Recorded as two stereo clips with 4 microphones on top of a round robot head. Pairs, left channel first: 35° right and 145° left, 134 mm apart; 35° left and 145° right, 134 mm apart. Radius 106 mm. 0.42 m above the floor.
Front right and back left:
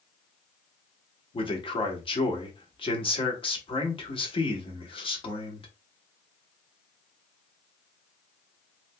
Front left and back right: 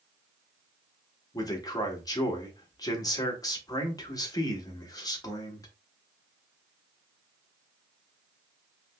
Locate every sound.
1.3 s a man speaking: 15° right, 1.5 m